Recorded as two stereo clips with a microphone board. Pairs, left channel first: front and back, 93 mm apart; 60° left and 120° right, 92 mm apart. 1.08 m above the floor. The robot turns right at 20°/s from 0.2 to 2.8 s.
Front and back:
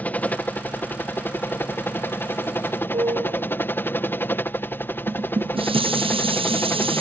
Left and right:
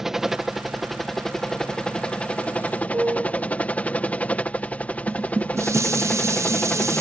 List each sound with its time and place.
0.0 s a helicopter: 40° right; by 7.0 s 10° left
2.9 s a piano: 175° left
5.1 s dishes clattering: straight behind